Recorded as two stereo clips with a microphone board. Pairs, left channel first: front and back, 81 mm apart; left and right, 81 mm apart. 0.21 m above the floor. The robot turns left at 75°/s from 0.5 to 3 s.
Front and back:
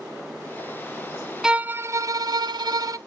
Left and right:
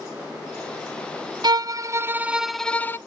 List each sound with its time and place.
1.4 s a violin: 100° right, 0.5 m; by 3.0 s 145° left, 0.5 m